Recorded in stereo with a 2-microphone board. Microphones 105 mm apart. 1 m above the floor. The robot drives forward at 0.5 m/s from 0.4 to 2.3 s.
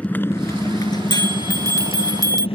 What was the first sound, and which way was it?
A motorcycle, 15° left (ahead or behind).